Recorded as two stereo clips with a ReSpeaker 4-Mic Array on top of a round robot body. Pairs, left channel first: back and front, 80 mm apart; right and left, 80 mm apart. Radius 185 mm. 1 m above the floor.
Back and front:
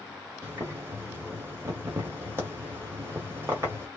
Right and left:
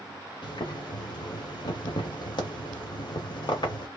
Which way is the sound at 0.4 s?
60° right.